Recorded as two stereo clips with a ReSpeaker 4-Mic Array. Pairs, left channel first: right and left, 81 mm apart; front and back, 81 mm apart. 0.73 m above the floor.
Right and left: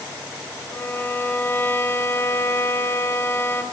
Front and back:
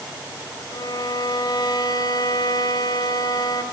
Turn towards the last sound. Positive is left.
turn(degrees=-30)